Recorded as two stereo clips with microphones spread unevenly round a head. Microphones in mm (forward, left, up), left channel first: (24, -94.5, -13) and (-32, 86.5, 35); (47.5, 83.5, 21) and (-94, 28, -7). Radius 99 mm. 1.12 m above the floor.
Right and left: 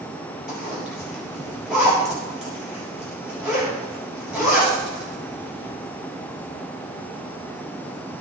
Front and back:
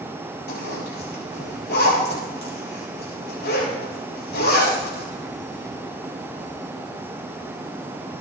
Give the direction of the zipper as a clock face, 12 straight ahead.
11 o'clock.